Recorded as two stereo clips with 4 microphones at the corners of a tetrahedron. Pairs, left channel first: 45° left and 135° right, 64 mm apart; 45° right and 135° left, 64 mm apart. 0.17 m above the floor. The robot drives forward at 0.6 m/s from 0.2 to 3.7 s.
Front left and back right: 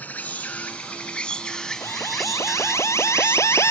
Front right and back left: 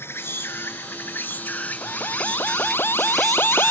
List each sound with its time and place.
0.0 s an insect: 10° right; by 3.7 s 150° right
1.8 s an alarm: 5° left